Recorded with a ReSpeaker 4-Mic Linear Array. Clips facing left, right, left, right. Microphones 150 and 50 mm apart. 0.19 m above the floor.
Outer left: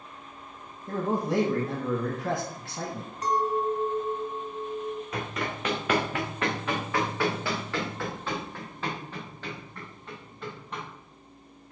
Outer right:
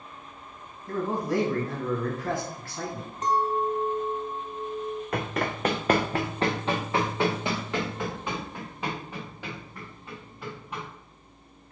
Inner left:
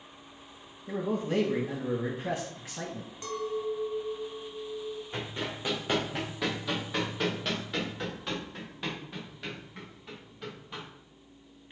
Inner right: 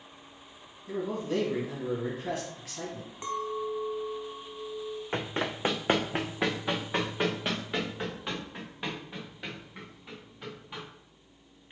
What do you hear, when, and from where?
0.9 s a man speaking: 25° left (ahead or behind), 1.0 m
3.2 s a clink: 25° right (ahead or behind), 0.8 m
5.1 s running footsteps: 60° right (ahead or behind), 0.8 m; by 10.8 s 5° right (ahead or behind), 3.5 m